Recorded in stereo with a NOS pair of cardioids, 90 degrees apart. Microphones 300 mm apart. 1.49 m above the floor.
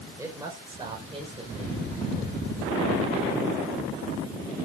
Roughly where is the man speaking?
Ahead.